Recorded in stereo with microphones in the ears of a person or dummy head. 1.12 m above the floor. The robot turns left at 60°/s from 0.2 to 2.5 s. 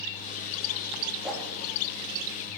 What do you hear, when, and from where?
1.2 s a whoosh: 5° right (ahead or behind), 2.5 m; by 1.6 s 15° left (ahead or behind), 2.5 m